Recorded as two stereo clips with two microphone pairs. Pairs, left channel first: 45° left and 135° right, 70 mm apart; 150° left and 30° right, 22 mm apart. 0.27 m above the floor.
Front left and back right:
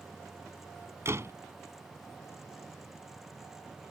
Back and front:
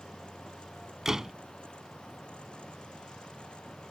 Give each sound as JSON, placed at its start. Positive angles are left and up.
{"t": 1.1, "sound": "a door slam", "azimuth_deg": -90}